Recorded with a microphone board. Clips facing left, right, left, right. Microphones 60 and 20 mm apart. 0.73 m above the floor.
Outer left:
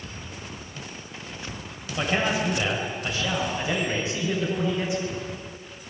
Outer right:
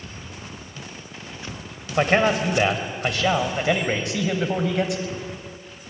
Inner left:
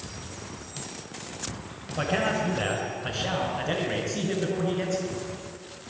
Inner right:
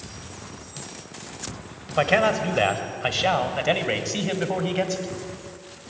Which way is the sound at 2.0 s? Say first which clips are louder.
Outer right 6 dB, inner right 6 dB; 60° right (ahead or behind).